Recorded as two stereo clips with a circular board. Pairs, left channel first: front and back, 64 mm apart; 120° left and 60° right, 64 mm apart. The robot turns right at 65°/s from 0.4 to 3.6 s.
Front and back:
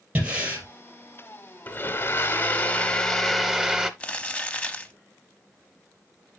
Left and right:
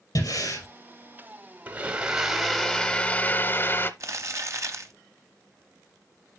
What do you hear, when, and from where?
0.1 s breathing: 110° left, 3 m; by 0.7 s 125° left, 3 m
1.7 s a blender: 20° right, 0.7 m; by 3.9 s 105° left, 0.7 m
4.0 s crumpling: 65° right, 0.9 m